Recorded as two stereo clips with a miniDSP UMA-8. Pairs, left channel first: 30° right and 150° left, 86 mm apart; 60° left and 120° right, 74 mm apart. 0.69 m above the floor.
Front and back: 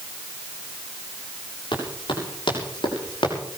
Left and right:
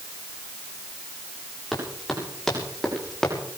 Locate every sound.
1.7 s running footsteps: 30° right, 9 m; by 3.4 s 20° right, 7 m